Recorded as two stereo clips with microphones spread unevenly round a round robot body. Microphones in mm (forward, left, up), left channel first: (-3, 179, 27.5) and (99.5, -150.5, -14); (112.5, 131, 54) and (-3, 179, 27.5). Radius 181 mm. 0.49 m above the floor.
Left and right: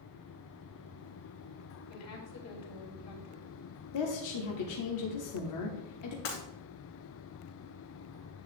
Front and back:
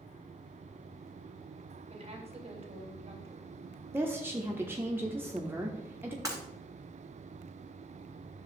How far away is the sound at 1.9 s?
About 2.0 m.